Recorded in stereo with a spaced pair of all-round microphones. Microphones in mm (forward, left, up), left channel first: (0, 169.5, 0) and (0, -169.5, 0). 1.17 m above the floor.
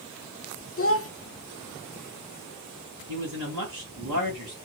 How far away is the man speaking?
About 1.9 m.